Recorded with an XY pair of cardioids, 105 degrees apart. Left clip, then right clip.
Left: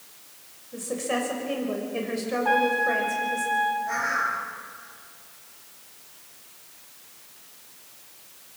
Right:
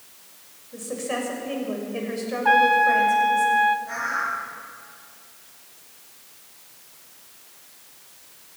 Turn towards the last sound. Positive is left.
turn(degrees=15)